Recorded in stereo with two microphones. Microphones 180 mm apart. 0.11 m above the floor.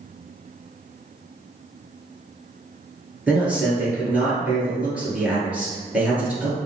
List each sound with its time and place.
3.3 s a man speaking: 10° right (ahead or behind), 1.5 m